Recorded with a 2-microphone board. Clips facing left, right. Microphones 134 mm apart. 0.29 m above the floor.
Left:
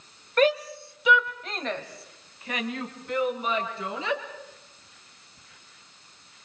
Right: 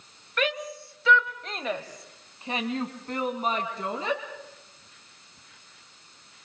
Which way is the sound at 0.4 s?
40° left (ahead or behind).